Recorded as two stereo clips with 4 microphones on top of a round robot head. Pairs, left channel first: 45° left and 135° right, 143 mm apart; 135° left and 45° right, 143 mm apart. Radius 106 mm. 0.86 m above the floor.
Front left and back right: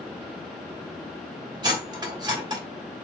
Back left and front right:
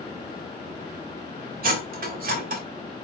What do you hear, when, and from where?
1.6 s cutlery clinking: 70° right, 1.5 m